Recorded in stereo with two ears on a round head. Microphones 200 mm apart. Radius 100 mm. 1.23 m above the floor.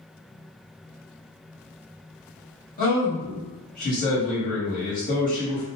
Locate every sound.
2.8 s a man speaking: 40° left (ahead or behind), 1.4 m